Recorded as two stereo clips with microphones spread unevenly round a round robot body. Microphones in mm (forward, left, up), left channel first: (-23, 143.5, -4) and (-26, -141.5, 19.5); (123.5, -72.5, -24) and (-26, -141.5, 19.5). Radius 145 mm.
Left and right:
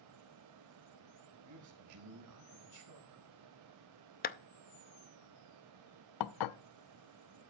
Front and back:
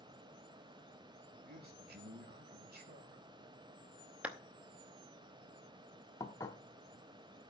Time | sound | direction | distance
1.4 | a man speaking | 120° right | 4 m
4.2 | a clap | 100° left | 0.6 m
6.2 | dishes clattering | 100° left | 0.5 m